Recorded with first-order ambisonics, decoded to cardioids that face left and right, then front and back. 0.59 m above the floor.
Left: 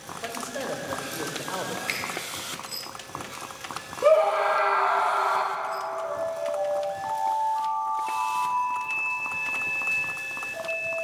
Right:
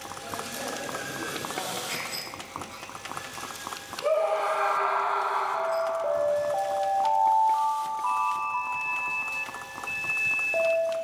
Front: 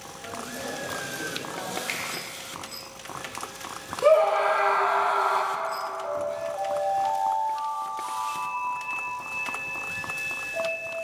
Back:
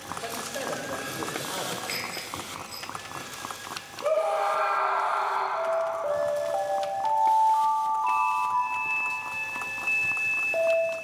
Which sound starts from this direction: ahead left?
A scream, at 4.0 s.